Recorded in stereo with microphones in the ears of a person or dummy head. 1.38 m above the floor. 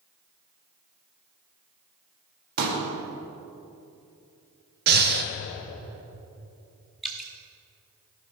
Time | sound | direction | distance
2.6 | a pop | 55° right (ahead or behind) | 2 m
4.9 | breathing | 55° right (ahead or behind) | 0.9 m
7.0 | dripping | centre (ahead or behind) | 1.2 m